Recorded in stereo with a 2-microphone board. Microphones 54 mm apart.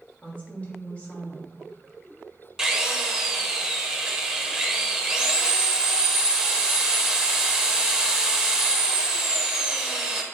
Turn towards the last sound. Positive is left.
turn(degrees=-10)  # may be behind; listen again after turning